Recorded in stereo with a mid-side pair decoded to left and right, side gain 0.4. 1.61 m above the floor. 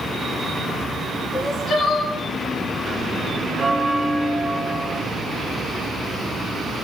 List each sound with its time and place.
1.3 s crying: 55° left, 5.5 m
3.6 s a bell: 25° right, 5 m